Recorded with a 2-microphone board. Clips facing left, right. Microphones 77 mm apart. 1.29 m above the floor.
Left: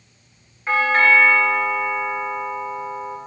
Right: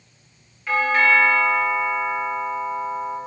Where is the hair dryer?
No hair dryer in this recording.